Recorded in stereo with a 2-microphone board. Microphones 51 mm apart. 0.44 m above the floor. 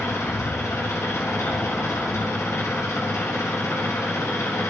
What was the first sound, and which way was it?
An engine running, 85° left.